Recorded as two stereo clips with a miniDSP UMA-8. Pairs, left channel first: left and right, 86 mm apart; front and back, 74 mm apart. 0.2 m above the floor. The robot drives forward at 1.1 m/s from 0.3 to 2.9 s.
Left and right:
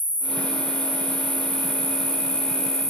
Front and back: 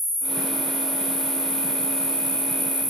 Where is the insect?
20° right, 4 m; by 2.9 s 60° right, 2.0 m.